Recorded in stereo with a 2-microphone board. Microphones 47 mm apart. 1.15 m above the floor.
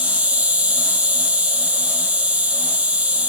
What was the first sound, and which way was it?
An insect, 30° right (ahead or behind).